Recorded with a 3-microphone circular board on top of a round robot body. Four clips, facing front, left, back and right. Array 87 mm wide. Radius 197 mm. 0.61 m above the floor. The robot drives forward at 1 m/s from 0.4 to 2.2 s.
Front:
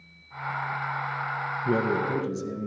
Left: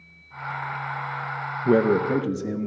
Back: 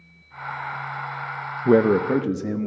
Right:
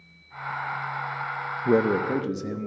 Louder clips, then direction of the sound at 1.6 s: Left 2 dB, back 9 dB; 165° left.